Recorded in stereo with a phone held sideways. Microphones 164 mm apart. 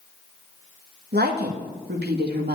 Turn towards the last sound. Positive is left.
turn(degrees=-80)